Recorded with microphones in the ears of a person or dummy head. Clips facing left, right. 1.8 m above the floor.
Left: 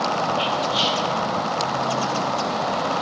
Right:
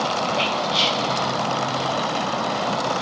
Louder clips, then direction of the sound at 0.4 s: Even; 35° right (ahead or behind).